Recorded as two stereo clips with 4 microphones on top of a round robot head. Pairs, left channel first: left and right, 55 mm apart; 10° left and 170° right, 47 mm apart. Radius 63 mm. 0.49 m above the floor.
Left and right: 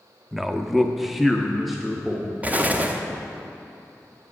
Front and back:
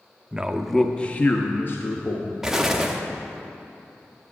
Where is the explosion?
100° right, 0.9 m.